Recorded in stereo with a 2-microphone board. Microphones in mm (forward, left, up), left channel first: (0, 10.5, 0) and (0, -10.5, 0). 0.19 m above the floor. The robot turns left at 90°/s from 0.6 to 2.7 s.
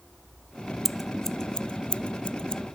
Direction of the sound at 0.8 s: 15° right (ahead or behind).